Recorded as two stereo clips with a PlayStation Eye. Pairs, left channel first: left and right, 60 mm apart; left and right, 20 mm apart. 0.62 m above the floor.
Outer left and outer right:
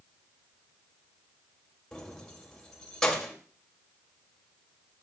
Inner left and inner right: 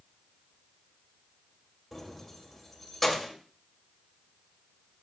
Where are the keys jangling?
10° left (ahead or behind), 2 m.